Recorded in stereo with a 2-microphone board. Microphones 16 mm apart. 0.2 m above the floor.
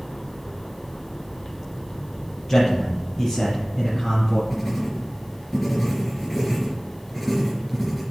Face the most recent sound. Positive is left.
turn(degrees=10)  # may be behind; listen again after turning